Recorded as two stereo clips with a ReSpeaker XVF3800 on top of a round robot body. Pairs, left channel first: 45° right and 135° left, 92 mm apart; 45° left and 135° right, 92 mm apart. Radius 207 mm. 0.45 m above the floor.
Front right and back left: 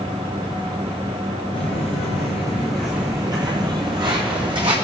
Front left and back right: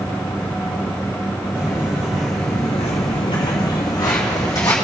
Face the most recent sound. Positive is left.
turn(degrees=100)